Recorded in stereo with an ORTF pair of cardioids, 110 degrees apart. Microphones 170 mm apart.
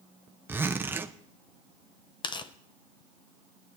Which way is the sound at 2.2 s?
25° left.